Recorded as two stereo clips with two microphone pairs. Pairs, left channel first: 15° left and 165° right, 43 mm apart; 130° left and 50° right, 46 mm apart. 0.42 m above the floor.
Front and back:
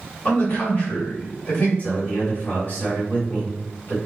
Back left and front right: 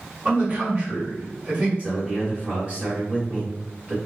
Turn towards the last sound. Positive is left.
turn(degrees=-5)